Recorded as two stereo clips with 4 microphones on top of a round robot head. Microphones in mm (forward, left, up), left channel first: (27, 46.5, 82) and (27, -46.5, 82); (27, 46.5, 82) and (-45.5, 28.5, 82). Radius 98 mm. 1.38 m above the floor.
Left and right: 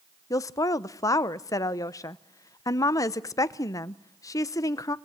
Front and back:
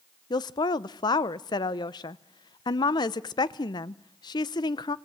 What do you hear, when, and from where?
0.3 s a woman speaking: 35° left, 0.6 m